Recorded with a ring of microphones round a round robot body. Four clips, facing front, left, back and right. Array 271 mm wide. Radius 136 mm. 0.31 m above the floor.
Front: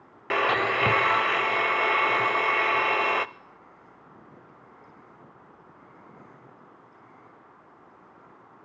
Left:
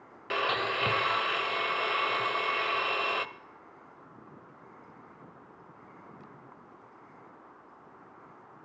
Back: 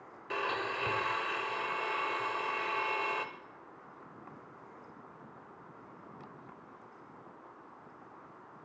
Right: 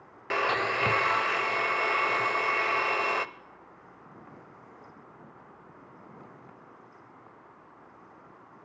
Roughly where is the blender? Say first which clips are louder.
Right 2 dB, front 11 dB; ahead.